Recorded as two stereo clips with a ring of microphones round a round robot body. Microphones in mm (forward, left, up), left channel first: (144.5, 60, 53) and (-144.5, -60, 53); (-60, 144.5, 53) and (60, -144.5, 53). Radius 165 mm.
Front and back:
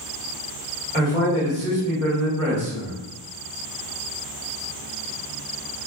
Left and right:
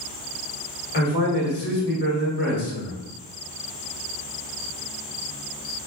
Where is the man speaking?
145° left, 1.4 m.